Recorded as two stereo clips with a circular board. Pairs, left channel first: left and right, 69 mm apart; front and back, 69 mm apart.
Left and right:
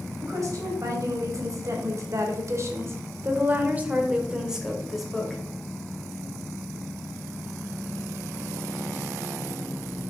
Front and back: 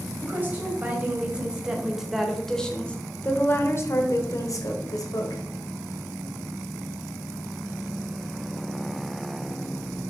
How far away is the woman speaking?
About 2.0 m.